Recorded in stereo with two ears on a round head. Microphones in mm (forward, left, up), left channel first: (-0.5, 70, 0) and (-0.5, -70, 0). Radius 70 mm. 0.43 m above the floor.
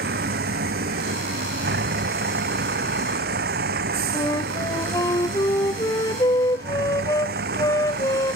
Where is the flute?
20° left (ahead or behind).